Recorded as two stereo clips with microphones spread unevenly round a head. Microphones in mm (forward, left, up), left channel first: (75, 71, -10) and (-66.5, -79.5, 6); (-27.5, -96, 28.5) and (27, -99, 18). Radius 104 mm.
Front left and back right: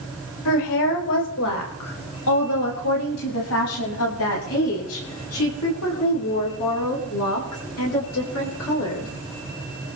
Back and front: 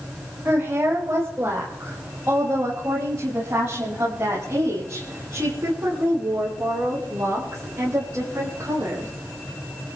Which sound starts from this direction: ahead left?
A woman speaking, at 0.5 s.